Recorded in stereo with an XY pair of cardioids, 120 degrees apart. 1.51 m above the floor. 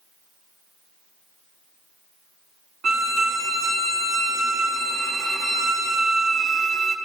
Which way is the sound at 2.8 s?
50° right.